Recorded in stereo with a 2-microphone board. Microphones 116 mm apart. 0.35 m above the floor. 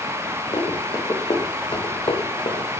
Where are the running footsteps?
35° left (ahead or behind), 3 m; by 2.7 s 50° left (ahead or behind), 2 m.